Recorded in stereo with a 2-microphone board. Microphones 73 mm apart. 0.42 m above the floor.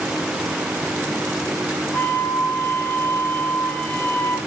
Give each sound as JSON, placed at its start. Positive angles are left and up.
{"t": 1.9, "sound": "a flute", "side_deg": 30, "distance_m": 1.7}